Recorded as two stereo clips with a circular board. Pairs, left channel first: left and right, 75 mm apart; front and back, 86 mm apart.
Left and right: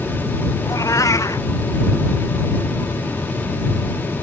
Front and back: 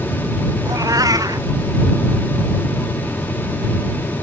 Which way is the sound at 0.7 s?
135° left.